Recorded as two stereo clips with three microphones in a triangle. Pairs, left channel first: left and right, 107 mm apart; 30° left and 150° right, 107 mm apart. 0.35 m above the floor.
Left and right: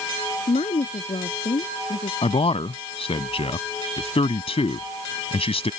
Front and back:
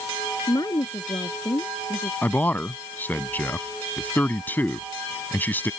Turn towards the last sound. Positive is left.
turn(degrees=100)